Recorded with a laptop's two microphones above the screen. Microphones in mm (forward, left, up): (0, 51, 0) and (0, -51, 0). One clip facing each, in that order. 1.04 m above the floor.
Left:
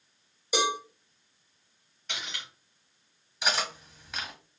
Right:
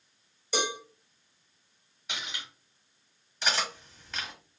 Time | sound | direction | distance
0.5 | a cowbell | 10° left (ahead or behind) | 1.1 m
2.1 | cutlery clinking | 5° right (ahead or behind) | 1.1 m
3.4 | cutlery clinking | 5° left (ahead or behind) | 1.3 m